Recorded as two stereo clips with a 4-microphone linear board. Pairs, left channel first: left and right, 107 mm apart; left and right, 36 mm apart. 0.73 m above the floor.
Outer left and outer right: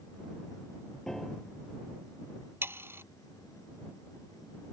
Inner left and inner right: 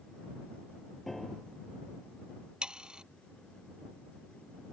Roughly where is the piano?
Centre.